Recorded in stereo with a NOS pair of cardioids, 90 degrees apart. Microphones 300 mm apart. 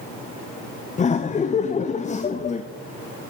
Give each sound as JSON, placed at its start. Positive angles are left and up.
{"t": 1.0, "sound": "laughter", "azimuth_deg": 25, "distance_m": 0.5}